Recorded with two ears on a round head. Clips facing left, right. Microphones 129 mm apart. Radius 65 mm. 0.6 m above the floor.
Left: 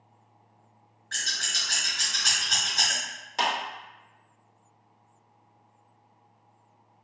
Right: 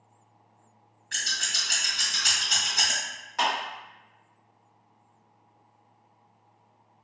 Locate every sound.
1.1 s scissors: 15° right (ahead or behind), 1.6 m
3.4 s a clap: 30° left (ahead or behind), 1.8 m